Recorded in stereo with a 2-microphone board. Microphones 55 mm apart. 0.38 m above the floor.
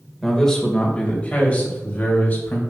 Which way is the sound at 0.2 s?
5° left (ahead or behind).